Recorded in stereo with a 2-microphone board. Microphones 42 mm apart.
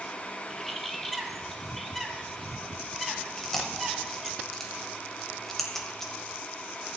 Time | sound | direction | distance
0.5 | a bird | 5° left (ahead or behind) | 1.1 m
3.4 | chewing | 10° left (ahead or behind) | 1.5 m